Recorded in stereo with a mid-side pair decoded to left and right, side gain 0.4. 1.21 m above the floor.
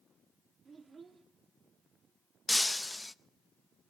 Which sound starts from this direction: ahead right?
A child speaking, at 0.7 s.